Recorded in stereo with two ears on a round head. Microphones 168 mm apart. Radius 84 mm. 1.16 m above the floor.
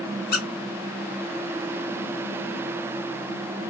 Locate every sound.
0.3 s a squeak: 55° left (ahead or behind), 1.5 m